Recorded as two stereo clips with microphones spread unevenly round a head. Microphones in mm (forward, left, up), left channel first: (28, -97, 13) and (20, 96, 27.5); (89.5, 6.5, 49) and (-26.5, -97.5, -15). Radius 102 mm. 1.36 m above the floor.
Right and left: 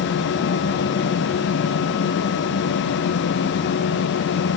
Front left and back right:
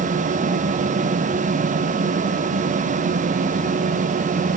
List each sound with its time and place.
Only background noise.